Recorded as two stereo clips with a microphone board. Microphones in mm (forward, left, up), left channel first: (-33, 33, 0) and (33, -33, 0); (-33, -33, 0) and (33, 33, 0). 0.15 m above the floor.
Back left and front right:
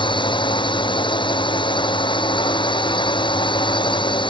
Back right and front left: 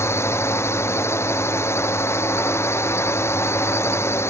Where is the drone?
165° left.